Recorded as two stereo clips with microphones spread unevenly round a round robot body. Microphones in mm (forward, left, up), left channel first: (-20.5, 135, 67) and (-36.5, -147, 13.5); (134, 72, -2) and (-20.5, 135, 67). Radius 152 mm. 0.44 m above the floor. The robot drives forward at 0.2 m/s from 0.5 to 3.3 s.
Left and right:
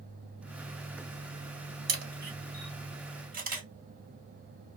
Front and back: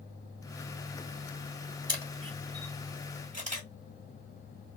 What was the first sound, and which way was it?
A camera shutter, 125° right.